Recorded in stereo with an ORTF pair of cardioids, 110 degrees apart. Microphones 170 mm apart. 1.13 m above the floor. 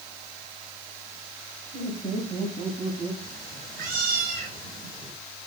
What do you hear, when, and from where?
1.7 s laughter: 30° right, 5.5 m; by 3.1 s 40° right, 6 m
3.2 s a cat meowing: 55° right, 3.5 m